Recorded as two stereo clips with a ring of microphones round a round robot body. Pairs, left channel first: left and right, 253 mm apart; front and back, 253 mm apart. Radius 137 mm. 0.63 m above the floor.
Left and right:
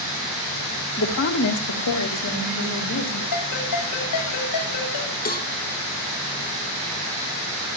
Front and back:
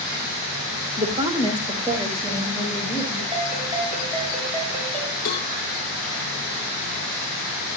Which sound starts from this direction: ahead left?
A cowbell, at 5.2 s.